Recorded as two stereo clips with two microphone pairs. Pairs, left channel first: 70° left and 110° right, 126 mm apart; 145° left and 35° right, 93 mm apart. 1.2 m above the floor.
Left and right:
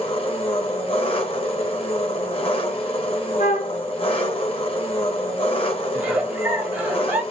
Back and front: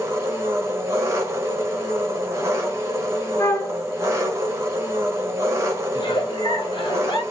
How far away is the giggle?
About 0.9 m.